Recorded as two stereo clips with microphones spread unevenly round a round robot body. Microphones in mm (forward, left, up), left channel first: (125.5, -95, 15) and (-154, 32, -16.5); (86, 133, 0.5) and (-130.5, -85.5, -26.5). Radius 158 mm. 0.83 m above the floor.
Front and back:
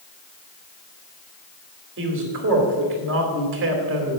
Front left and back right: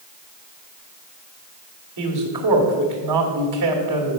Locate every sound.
2.0 s a man speaking: 155° right, 2 m